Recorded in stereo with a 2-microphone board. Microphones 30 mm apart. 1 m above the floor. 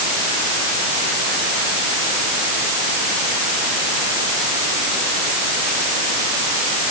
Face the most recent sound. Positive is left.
No sound to turn to.